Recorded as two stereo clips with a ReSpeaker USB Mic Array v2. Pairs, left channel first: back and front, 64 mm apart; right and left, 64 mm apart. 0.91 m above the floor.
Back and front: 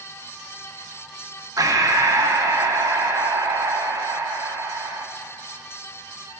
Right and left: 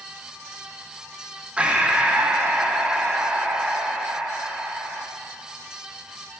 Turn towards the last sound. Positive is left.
turn(degrees=20)